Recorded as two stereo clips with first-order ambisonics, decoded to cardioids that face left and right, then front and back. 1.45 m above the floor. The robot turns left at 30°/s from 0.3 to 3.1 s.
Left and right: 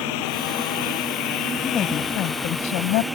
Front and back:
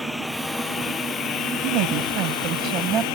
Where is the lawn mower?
85° left; by 3.1 s straight ahead.